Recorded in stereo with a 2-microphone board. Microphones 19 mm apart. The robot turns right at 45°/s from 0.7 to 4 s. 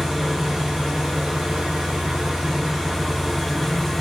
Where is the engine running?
130° right, 0.7 m; by 4.0 s 15° left, 0.7 m.